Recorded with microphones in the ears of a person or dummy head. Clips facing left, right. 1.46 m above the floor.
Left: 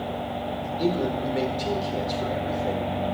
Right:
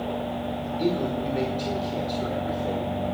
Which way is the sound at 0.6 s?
10° left (ahead or behind).